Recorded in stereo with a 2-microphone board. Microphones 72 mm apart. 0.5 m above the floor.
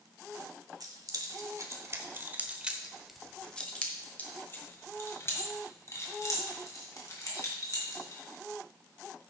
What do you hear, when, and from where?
0.8 s keys jangling: 65° right (ahead or behind), 1.4 m; by 8.2 s 55° left (ahead or behind), 3.5 m